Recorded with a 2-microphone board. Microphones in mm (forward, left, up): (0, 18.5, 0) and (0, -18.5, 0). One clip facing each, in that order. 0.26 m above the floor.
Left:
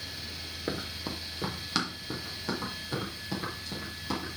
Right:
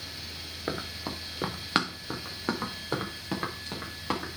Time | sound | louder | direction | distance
0.7 | running footsteps | right 1 dB | 25° right (ahead or behind) | 1.4 m